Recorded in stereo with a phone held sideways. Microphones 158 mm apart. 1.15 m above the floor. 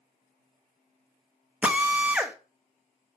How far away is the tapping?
I don't hear tapping.